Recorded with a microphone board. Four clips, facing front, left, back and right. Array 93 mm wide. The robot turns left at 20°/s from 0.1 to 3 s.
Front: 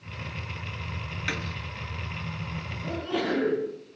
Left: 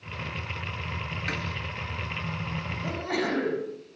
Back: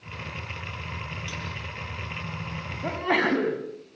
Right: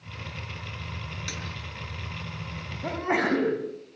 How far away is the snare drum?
About 2.5 m.